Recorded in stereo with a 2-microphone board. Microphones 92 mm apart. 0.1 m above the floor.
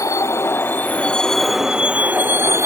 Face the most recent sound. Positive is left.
turn(degrees=-30)  # may be behind; listen again after turning